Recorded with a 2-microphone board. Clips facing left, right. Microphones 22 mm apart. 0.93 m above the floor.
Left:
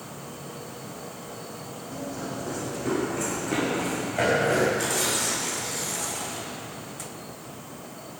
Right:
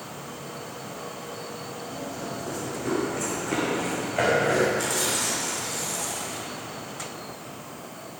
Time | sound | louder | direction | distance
1.9 | running footsteps | left 2 dB | 15° left (ahead or behind) | 2.5 m
4.8 | tearing paper | even | centre (ahead or behind) | 3.5 m